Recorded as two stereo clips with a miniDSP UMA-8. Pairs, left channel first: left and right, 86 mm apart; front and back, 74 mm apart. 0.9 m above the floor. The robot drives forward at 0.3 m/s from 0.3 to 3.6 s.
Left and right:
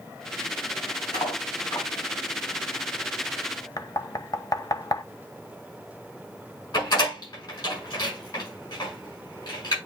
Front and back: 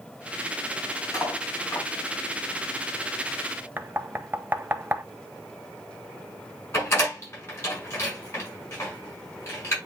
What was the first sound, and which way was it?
Cutlery clinking, 50° left.